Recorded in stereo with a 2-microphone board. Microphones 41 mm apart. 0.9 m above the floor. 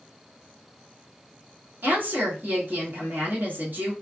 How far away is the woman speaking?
About 1.2 m.